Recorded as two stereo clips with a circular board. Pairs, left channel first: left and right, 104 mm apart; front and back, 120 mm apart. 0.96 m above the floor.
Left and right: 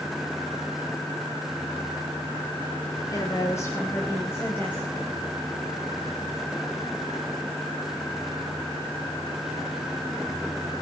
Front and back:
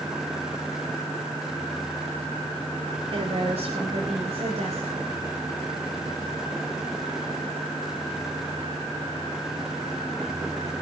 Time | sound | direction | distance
3.1 | a woman speaking | 145° left | 3.5 m